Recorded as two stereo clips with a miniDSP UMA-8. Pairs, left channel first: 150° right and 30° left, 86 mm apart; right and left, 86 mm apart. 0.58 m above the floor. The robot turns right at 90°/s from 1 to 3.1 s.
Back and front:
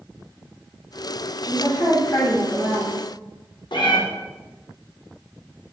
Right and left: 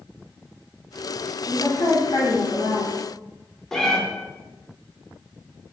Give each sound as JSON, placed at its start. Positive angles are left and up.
{"t": 1.4, "sound": "a woman speaking", "azimuth_deg": -155, "distance_m": 1.4}
{"t": 3.7, "sound": "a cat meowing", "azimuth_deg": -175, "distance_m": 0.6}